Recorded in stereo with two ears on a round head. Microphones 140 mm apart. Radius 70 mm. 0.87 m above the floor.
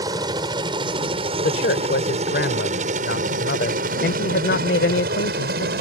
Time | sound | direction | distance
0.0 | a helicopter | 25° right (ahead or behind) | ?
1.4 | a man speaking | 70° left (ahead or behind) | ?